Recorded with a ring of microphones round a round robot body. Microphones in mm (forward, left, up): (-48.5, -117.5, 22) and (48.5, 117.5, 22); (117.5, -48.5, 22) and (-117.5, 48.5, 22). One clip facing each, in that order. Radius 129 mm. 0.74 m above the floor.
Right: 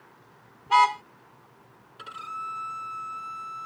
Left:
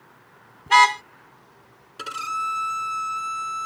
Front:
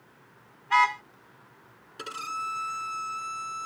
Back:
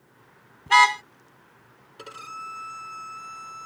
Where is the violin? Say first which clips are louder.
Left 9 dB, front 2 dB; 40° left.